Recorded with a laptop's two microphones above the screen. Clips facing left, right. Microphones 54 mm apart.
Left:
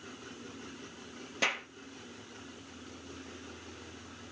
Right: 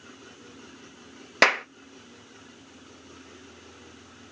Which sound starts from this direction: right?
A clap, at 1.4 s.